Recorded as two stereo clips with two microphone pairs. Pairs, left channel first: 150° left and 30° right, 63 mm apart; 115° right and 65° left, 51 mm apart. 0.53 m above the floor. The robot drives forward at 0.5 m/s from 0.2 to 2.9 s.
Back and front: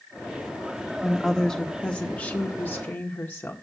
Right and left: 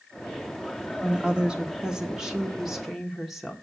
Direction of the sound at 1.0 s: 75° left.